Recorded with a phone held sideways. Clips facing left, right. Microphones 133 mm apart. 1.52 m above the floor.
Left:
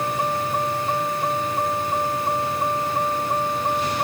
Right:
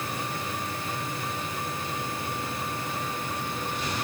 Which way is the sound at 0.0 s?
85° left.